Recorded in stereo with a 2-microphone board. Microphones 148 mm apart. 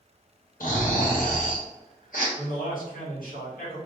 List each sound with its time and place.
0.6 s snoring: 75° left (ahead or behind), 2 m
2.4 s a man speaking: 80° left, 2.5 m